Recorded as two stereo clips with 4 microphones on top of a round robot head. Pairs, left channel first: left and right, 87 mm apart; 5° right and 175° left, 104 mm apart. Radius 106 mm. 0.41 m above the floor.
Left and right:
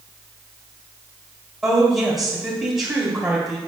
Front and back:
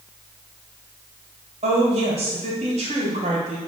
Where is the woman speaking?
170° right, 2.5 m.